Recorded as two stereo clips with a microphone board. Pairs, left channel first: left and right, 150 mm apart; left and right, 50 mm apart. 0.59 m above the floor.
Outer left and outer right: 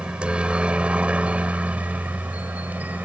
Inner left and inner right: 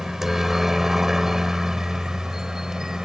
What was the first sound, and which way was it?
A helicopter, 5° right (ahead or behind).